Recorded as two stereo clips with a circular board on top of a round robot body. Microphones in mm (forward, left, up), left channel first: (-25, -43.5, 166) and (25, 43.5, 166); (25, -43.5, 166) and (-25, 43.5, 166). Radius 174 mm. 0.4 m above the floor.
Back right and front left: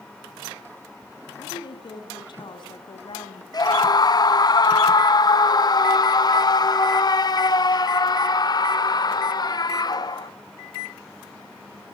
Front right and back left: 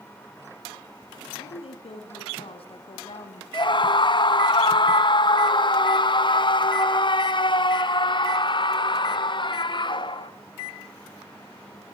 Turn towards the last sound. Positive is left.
turn(degrees=-80)